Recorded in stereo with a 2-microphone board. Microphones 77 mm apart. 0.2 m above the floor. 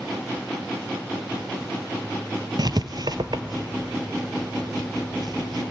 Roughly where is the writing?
Right.